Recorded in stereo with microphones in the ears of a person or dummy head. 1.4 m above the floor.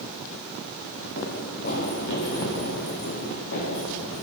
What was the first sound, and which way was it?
Running footsteps, 50° left (ahead or behind).